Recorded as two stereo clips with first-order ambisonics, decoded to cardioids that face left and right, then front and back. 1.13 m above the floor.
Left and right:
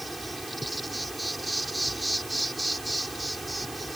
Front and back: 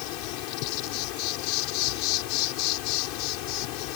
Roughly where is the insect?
Ahead.